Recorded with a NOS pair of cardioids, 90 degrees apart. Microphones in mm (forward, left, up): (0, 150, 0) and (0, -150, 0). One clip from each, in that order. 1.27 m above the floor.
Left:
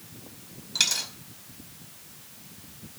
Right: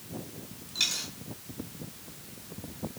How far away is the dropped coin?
About 2 m.